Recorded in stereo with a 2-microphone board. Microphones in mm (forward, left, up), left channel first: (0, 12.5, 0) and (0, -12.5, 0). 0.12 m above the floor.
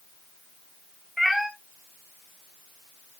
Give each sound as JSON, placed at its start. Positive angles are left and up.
{"t": 1.2, "sound": "a cat meowing", "side_deg": 0, "distance_m": 1.3}